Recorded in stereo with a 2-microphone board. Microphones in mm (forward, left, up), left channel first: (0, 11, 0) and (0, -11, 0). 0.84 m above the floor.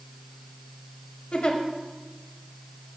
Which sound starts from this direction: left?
A giggle, at 1.3 s.